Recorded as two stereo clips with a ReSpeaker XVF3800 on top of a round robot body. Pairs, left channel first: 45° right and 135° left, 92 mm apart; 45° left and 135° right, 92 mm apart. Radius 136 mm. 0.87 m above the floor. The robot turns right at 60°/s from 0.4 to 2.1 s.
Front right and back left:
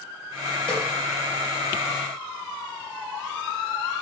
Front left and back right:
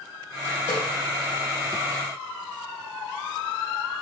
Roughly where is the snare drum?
Ahead left.